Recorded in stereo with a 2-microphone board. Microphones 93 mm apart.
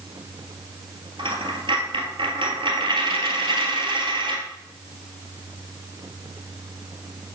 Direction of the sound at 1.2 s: 70° right (ahead or behind).